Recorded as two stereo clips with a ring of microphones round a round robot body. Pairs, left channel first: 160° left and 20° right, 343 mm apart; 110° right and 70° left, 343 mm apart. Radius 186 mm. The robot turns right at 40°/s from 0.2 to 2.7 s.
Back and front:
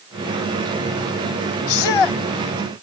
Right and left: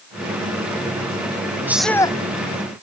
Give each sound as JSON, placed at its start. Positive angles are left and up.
{"t": 1.7, "sound": "a shout", "azimuth_deg": 150}